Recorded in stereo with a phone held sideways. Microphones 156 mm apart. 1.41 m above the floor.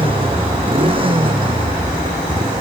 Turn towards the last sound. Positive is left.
turn(degrees=-35)  # may be behind; listen again after turning